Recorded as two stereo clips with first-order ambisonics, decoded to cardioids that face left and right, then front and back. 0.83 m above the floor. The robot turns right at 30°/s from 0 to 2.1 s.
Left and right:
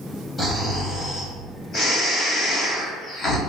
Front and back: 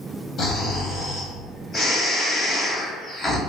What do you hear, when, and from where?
0.4 s snoring: 15° left, 0.7 m; by 3.4 s 65° left, 0.7 m